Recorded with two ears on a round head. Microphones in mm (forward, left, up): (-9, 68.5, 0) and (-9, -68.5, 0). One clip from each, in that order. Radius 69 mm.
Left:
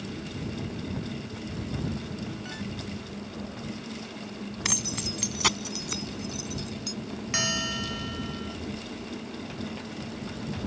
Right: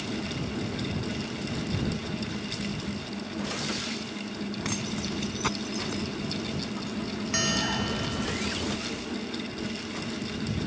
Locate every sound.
4.7 s keys jangling: 75° left (ahead or behind); by 7.0 s 85° left
7.3 s a bell: 15° left (ahead or behind)